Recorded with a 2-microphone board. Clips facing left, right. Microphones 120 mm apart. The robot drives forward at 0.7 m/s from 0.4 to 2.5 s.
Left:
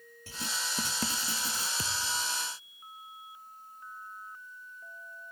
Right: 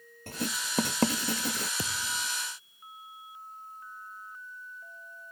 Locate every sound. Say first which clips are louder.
0.3 s writing: right 4 dB; 55° right (ahead or behind); by 1.7 s 65° right (ahead or behind)
1.8 s a thud: even; 30° right (ahead or behind); by 2.3 s 35° right (ahead or behind)